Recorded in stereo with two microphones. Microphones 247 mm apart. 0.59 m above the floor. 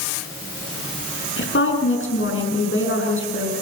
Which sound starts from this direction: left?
A woman speaking, at 1.4 s.